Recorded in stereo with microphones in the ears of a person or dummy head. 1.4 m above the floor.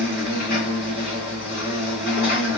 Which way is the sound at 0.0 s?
50° left (ahead or behind).